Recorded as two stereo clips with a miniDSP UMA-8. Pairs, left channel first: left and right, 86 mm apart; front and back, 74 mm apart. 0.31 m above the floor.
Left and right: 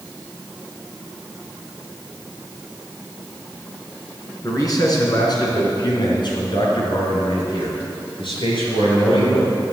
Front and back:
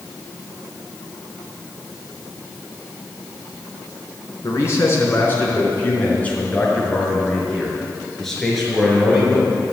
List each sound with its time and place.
4.4 s a man speaking: 45° left, 4 m; by 9.6 s 95° left, 6.5 m